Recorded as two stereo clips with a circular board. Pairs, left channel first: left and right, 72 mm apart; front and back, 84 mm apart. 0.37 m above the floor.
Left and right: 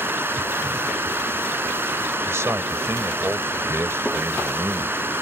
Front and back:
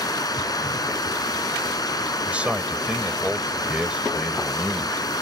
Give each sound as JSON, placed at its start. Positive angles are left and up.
{"t": 0.0, "sound": "running water", "azimuth_deg": -30}
{"t": 2.2, "sound": "a man speaking", "azimuth_deg": -110}